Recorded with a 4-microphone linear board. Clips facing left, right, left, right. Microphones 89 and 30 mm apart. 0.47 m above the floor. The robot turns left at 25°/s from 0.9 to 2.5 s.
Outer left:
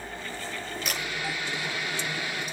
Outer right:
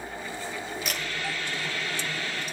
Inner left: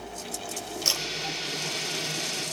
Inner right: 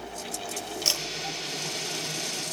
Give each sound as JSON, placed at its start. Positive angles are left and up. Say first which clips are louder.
{"t": 0.8, "sound": "a camera shutter", "louder": "outer left 2 dB, even", "side_deg": 0, "distance_m": 9.5}